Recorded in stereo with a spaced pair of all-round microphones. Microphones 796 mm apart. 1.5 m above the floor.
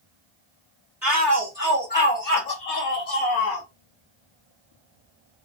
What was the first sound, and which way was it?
A shout, 5° right (ahead or behind).